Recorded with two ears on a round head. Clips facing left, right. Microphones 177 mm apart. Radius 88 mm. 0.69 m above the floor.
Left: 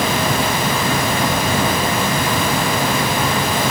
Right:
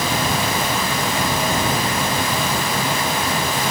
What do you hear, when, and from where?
Only background noise.